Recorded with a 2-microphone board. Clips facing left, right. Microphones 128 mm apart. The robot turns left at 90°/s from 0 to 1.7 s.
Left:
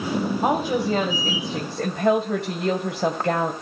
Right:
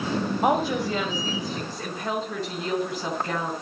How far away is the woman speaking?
About 2.5 m.